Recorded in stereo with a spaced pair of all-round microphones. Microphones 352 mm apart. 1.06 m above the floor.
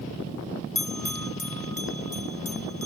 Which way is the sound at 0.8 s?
70° left (ahead or behind).